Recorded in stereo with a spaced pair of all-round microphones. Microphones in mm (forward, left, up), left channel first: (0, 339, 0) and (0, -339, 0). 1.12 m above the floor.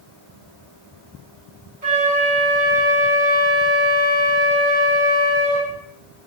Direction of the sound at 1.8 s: 80° right.